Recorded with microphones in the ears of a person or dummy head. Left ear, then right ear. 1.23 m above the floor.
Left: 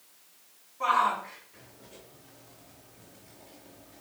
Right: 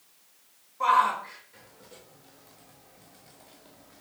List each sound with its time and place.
0.8 s a shout: 35° right (ahead or behind), 6 m; by 4.0 s 30° right (ahead or behind), 3.5 m